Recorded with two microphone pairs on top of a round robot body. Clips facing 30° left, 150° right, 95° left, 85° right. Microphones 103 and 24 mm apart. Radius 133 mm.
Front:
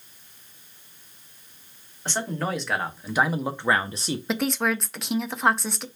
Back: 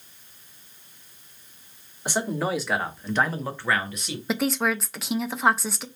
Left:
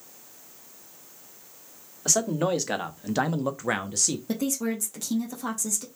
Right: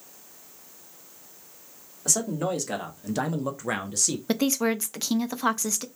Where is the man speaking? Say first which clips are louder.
Back 2 dB, left 2 dB; 140° left, 1.4 m; by 4.2 s 30° left, 0.9 m.